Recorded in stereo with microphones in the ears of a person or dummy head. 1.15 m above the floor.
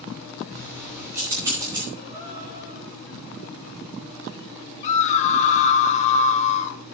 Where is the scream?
40° left (ahead or behind), 1.6 m.